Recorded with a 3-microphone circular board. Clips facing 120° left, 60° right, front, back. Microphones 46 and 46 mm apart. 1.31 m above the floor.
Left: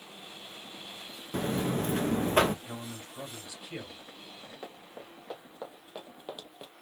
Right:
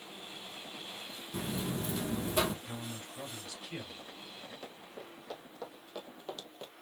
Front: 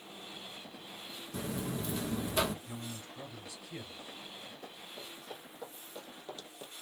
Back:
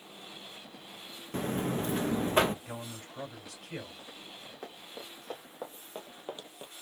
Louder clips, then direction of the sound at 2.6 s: Left 1 dB, back 2 dB; 165° right.